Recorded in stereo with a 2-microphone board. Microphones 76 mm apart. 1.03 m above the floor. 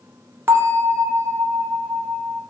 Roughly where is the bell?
Right.